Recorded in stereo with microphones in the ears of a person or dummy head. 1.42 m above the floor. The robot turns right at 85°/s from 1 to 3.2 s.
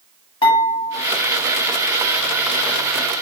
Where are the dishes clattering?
30° left (ahead or behind), 1.3 m.